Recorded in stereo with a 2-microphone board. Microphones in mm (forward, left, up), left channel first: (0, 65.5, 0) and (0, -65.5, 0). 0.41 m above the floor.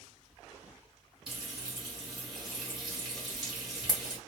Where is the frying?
5° right (ahead or behind), 2.0 m.